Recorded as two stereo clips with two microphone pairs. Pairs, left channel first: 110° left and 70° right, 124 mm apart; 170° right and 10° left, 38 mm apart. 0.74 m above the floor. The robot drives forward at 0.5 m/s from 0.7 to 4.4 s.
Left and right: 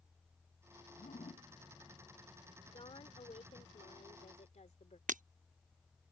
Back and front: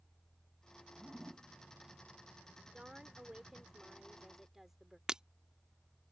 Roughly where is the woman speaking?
Left.